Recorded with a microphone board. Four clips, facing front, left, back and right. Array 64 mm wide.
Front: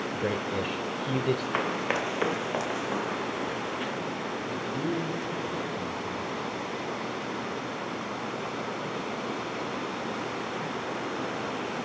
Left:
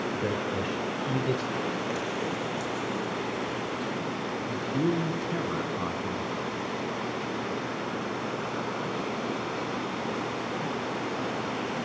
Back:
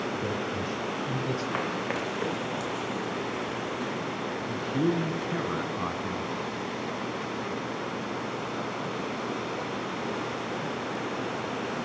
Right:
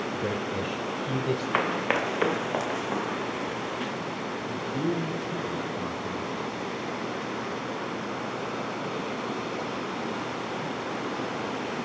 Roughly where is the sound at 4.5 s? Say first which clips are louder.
Left 2 dB, back 5 dB; behind left.